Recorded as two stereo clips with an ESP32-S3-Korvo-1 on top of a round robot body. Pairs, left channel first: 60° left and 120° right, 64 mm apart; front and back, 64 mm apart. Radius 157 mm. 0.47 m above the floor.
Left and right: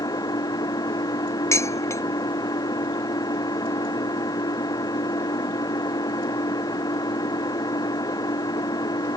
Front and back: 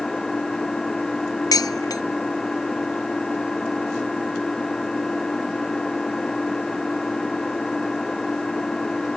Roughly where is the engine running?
Left.